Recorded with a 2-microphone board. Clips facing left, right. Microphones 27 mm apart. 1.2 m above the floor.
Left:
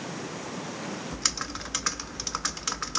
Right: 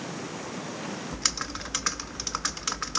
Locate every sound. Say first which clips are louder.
1.1 s typing on a keyboard: right 1 dB; centre (ahead or behind), 0.6 m